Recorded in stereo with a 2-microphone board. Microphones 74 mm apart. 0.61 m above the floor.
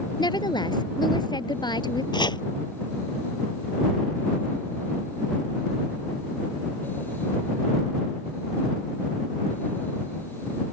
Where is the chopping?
85° left.